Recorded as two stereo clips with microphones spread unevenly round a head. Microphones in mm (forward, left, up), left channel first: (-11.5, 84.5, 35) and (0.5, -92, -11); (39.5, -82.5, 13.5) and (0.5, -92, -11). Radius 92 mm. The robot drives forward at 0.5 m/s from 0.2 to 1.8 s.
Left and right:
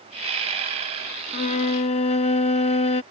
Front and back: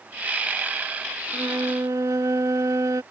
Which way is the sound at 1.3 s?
135° left.